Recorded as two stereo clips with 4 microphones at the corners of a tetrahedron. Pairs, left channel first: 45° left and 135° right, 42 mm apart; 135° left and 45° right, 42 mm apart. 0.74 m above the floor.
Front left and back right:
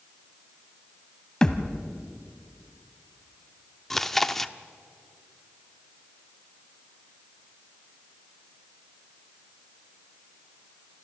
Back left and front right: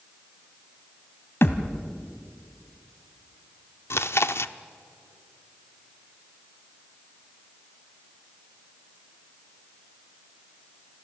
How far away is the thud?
About 1.2 m.